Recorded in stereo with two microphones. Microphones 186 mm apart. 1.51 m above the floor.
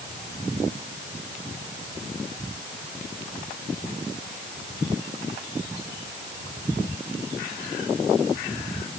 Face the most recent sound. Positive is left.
No sound to turn to.